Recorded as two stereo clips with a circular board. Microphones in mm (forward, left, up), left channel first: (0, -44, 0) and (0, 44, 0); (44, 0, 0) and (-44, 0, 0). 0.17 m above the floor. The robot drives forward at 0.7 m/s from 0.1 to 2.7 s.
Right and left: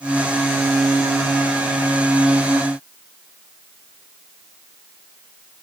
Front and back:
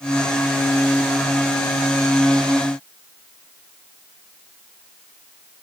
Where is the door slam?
I don't hear a door slam.